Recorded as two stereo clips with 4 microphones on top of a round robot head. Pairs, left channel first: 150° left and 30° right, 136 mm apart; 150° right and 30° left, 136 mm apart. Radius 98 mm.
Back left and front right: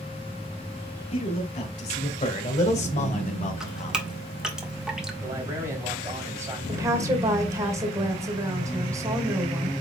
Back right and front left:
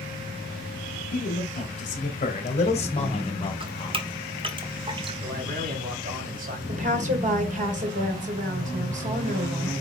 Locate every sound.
1.1 s a man speaking: 170° right, 3.5 m; by 4.1 s 155° left, 2 m
3.6 s dripping: 50° left, 1.7 m
5.2 s a man speaking: 35° left, 3.5 m
6.7 s a woman speaking: 35° left, 2.5 m